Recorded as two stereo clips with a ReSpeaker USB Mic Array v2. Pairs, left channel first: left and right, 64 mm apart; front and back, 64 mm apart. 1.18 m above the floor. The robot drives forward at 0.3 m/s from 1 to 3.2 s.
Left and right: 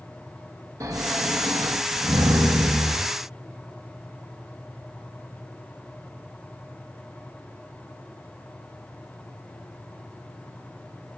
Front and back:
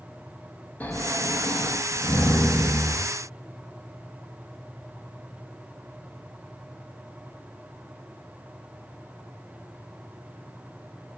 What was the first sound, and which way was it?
Snoring, 60° right.